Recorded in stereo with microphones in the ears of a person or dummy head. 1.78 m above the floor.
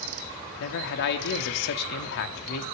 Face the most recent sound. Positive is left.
turn(degrees=60)  # may be behind; listen again after turning